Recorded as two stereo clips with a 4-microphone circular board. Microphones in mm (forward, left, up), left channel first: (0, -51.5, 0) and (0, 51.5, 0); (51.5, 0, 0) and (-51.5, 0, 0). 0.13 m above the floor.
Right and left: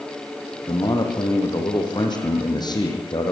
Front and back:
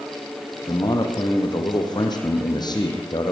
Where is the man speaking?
45° right, 6 m.